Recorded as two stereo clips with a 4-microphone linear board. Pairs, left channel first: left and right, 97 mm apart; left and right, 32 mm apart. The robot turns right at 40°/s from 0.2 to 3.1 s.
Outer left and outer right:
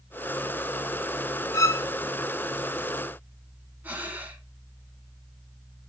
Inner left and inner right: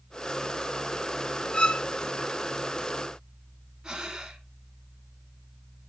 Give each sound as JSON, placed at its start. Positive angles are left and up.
{"t": 1.5, "sound": "a violin", "side_deg": 35, "distance_m": 0.7}
{"t": 3.8, "sound": "breathing", "side_deg": -20, "distance_m": 1.8}